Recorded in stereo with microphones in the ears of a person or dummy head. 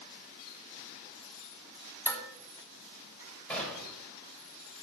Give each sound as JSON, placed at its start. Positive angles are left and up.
{"t": 2.1, "sound": "dishes clattering", "side_deg": 10, "distance_m": 3.0}
{"t": 3.5, "sound": "a gunshot", "side_deg": 5, "distance_m": 3.5}